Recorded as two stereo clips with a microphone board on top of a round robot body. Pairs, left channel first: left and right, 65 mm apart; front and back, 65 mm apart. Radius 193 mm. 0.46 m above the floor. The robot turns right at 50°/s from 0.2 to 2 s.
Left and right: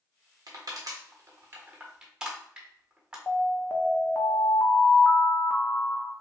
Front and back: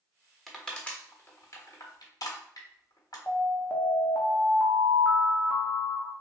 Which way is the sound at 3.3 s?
40° left.